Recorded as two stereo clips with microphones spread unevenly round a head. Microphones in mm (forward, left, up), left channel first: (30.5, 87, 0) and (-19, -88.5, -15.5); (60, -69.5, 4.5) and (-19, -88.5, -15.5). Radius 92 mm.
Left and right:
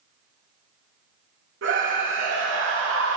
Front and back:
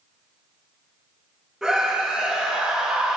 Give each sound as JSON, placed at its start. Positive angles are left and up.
{"t": 1.6, "sound": "a scream", "azimuth_deg": -80, "distance_m": 2.5}